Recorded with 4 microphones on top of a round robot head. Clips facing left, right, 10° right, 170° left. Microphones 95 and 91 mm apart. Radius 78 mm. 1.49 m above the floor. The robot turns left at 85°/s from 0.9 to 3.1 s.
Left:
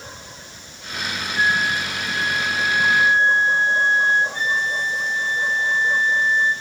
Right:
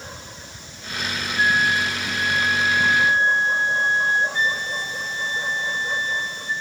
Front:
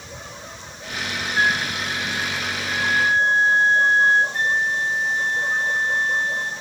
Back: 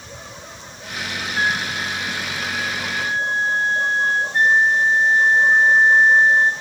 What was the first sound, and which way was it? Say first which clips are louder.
A flute: right 1 dB, front 1 dB; 65° left.